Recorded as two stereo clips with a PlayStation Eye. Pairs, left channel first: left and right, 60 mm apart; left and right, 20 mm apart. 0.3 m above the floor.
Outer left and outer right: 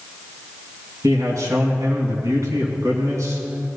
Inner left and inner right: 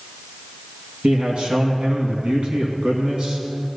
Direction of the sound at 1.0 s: 60° right (ahead or behind).